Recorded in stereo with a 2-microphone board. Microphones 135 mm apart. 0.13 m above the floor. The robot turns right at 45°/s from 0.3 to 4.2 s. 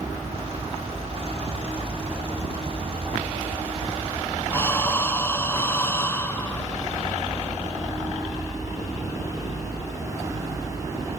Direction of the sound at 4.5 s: 20° left (ahead or behind).